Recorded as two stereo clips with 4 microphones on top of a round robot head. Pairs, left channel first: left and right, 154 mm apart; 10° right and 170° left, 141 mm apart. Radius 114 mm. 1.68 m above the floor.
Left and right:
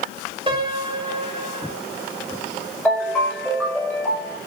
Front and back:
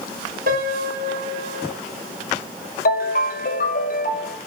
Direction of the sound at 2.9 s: 10° left.